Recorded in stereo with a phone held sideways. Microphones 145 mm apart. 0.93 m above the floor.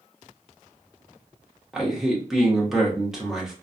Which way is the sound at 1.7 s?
Centre (ahead or behind).